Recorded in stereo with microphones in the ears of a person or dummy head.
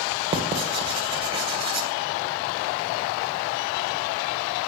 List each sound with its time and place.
0.3 s writing: 30° right (ahead or behind), 2.0 m